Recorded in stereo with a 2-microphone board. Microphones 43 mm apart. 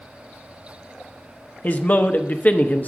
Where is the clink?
I don't hear a clink.